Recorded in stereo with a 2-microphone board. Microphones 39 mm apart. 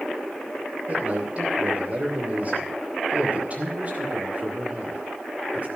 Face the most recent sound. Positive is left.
turn(degrees=-35)  # may be behind; listen again after turning